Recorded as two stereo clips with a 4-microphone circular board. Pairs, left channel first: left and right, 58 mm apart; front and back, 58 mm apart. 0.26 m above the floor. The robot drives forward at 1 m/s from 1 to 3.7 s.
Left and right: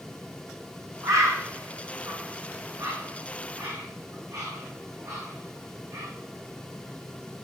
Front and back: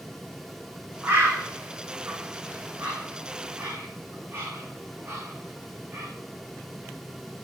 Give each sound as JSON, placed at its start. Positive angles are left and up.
{"t": 1.0, "sound": "a bird", "azimuth_deg": -120, "distance_m": 9.5}